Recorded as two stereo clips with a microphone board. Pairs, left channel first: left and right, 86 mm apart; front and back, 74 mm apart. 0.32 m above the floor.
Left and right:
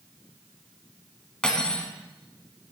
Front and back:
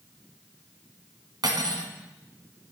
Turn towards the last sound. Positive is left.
turn(degrees=170)